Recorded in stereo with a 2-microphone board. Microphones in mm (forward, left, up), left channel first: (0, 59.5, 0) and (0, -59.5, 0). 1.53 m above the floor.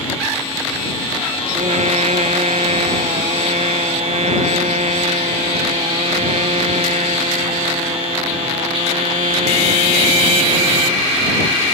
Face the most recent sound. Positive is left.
turn(degrees=-70)  # may be behind; listen again after turning